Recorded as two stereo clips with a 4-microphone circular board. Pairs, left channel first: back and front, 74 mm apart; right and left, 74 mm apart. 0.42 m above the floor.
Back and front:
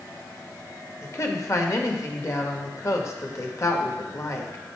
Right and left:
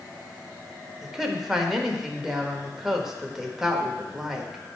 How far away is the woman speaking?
About 1.0 m.